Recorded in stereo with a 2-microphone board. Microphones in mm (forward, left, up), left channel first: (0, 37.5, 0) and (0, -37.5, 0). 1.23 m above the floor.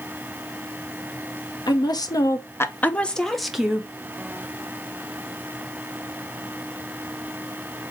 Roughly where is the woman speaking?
Left.